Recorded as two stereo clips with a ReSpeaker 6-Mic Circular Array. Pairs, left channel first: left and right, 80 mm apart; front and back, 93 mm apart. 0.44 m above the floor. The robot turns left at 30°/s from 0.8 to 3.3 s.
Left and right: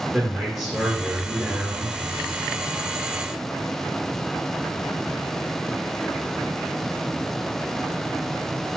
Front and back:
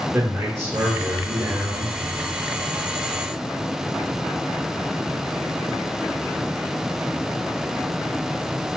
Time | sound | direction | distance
0.1 | a man speaking | 170° right | 1.2 m